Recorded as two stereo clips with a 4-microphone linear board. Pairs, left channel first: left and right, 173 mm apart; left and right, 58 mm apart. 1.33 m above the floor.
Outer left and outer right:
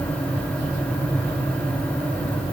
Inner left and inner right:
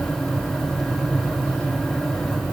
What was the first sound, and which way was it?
Only background noise.